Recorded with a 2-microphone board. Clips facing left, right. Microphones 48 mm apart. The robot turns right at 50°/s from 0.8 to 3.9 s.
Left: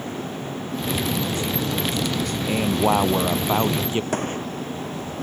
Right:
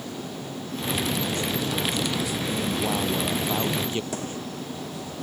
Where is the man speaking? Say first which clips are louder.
Left 9 dB; 85° left; by 4.0 s 155° left.